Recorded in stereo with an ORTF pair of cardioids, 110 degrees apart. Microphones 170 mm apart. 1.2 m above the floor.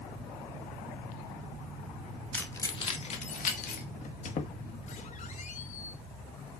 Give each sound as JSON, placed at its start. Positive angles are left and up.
{"t": 2.3, "sound": "keys jangling", "azimuth_deg": 10, "distance_m": 1.5}
{"t": 4.0, "sound": "a squeak", "azimuth_deg": 50, "distance_m": 1.3}